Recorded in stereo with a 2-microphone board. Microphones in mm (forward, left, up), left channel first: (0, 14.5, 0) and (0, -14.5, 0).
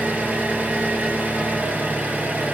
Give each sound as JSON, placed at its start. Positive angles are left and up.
{"t": 0.0, "sound": "an engine running", "side_deg": -70, "distance_m": 0.8}